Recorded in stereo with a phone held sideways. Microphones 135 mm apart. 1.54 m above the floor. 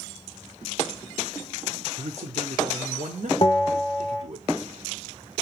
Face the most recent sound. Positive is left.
turn(degrees=35)  # may be behind; listen again after turning